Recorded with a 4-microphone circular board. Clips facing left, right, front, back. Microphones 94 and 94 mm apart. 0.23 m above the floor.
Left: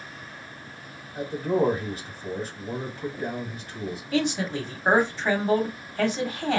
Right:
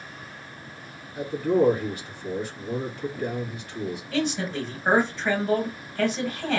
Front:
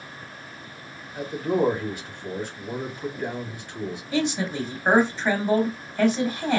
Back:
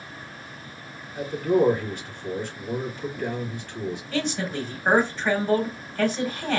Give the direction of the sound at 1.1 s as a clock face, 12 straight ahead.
10 o'clock.